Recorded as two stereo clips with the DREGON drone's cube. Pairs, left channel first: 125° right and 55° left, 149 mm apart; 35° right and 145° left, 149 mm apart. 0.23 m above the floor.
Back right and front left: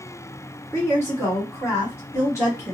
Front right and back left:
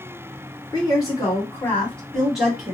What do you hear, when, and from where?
0.7 s a woman speaking: 65° right, 1.6 m; by 2.7 s 150° right, 1.4 m